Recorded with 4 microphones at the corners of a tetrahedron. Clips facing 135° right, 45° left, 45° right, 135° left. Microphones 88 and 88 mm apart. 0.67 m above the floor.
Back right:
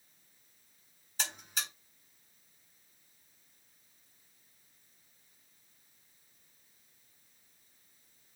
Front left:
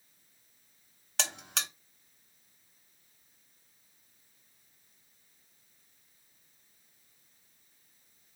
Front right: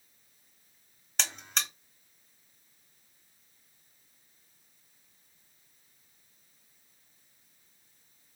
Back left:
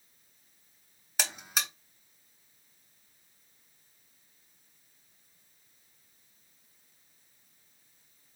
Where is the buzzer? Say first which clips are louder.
Front left 2 dB, back left 1 dB; 50° left, 0.7 m.